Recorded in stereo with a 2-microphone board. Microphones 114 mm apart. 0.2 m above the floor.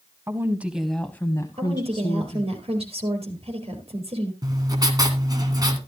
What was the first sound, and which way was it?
A woman speaking, 25° right (ahead or behind).